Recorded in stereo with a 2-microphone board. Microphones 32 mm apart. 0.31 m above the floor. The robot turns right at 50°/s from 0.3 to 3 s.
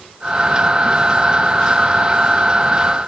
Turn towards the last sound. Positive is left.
No sound to turn to.